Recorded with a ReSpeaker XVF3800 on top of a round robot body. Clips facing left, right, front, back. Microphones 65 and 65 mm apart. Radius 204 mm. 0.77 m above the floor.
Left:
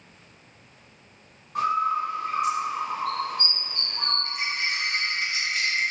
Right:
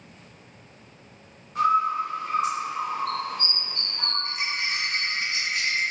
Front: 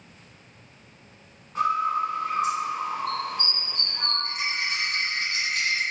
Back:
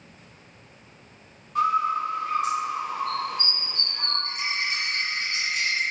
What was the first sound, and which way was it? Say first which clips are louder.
A bird: right 2 dB, back 1 dB; 60° left.